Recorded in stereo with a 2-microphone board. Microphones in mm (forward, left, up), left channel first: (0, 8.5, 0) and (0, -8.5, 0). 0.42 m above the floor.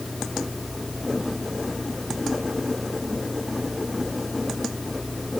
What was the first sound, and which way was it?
Only background noise.